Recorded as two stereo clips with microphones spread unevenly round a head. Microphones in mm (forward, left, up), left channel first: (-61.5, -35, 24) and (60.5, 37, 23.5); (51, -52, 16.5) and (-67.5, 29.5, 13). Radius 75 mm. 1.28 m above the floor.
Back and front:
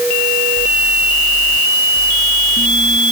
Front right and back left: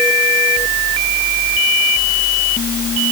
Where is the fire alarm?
I don't hear a fire alarm.